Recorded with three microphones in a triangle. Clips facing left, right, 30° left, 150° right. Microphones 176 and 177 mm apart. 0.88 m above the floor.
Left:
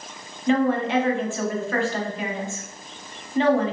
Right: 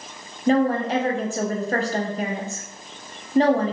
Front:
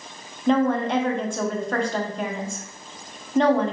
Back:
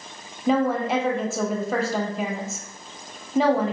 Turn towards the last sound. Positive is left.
turn(degrees=-65)